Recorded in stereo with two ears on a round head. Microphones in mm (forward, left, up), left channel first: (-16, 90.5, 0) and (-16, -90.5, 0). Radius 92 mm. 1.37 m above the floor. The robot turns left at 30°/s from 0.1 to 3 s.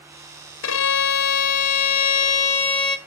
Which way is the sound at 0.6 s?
90° left.